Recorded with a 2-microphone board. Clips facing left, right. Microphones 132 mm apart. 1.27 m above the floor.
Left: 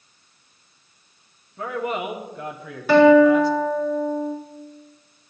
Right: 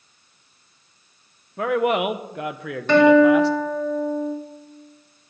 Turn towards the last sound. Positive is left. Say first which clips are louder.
# left 1 dB
turn(degrees=5)  # may be behind; listen again after turning